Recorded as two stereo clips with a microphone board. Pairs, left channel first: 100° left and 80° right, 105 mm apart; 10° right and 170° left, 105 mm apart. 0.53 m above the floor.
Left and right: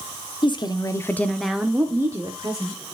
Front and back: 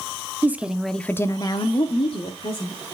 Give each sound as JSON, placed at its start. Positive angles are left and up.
{"t": 0.4, "sound": "a woman speaking", "azimuth_deg": 100, "distance_m": 0.9}